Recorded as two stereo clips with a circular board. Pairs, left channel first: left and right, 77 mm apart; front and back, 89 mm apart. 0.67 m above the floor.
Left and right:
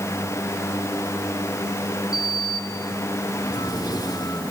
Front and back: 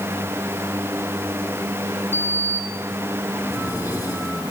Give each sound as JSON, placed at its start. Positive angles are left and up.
{"t": 2.1, "sound": "a sliding door", "azimuth_deg": 120, "distance_m": 7.5}